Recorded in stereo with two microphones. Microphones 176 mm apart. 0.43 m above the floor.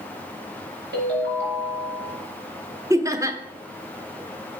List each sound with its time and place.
0.9 s a ringtone: 80° right, 4 m
2.9 s laughter: 20° right (ahead or behind), 0.8 m